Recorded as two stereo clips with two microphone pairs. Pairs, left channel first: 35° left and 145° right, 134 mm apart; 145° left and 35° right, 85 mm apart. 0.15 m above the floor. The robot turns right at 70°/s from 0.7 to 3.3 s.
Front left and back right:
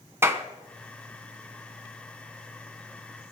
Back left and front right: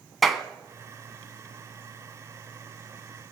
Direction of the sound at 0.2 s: 125° right.